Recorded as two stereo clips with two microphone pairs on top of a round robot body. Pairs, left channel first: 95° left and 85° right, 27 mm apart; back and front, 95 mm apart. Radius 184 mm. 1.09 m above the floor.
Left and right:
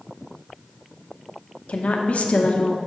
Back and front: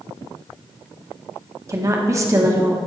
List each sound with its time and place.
1.7 s a woman speaking: 60° left, 1.2 m